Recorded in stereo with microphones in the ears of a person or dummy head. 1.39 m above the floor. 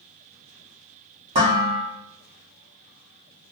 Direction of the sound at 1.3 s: 35° right (ahead or behind).